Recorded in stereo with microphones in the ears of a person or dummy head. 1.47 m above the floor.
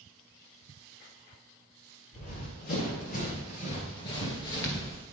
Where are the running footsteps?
35° left (ahead or behind), 2.5 m; by 5.0 s 10° left (ahead or behind), 1.7 m.